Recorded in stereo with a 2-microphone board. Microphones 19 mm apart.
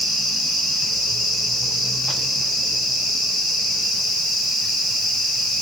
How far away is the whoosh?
No whoosh in this recording.